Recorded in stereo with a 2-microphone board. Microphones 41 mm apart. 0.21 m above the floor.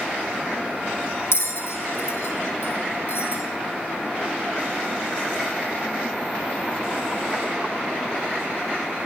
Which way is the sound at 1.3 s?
80° left.